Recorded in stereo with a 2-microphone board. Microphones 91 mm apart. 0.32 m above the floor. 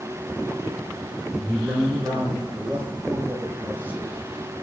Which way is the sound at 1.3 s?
20° right (ahead or behind).